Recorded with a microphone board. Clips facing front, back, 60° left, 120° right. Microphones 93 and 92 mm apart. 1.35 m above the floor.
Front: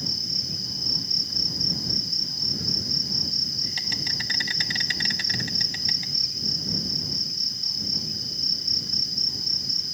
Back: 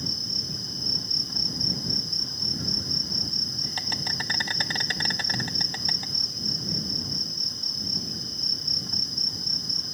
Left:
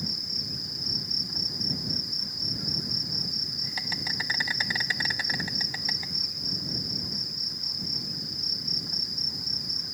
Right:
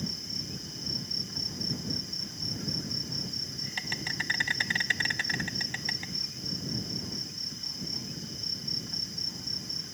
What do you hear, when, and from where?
0.0 s an insect: 135° left